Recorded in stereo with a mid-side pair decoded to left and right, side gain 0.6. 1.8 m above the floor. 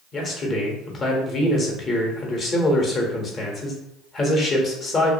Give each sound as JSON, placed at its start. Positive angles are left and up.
{"t": 0.1, "sound": "a man speaking", "azimuth_deg": 35, "distance_m": 0.9}